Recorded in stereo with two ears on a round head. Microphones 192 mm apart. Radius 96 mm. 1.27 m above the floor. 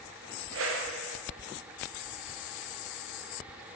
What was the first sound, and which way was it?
A whoosh, 65° right (ahead or behind).